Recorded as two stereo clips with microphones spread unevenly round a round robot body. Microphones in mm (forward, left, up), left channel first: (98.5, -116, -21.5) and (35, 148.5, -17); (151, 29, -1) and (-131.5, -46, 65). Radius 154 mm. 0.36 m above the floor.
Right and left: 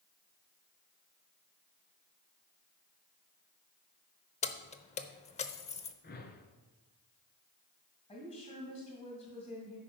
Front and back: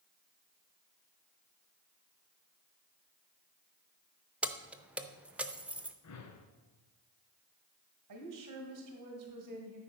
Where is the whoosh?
20° right, 1.3 m.